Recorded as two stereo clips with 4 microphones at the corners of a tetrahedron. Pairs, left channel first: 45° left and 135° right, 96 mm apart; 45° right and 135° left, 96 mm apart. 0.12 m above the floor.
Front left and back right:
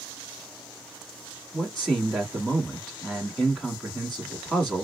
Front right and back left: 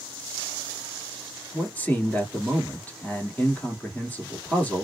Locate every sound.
1.5 s a man speaking: 20° right, 1.2 m